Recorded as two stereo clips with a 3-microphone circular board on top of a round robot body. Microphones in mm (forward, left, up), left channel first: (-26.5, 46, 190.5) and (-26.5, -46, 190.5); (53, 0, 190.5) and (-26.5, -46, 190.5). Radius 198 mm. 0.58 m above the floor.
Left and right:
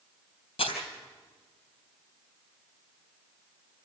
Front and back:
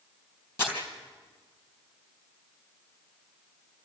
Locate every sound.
0.6 s crumpling: 95° left, 3.5 m